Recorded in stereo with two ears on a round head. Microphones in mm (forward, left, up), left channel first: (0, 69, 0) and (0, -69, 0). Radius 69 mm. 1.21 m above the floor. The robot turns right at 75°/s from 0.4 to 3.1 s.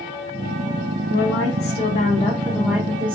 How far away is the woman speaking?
About 0.8 m.